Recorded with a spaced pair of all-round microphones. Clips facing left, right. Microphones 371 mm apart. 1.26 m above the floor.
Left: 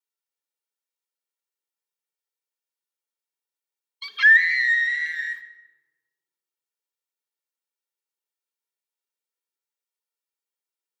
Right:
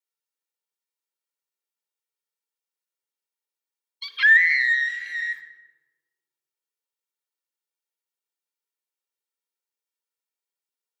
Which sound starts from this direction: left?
A scream, at 4.0 s.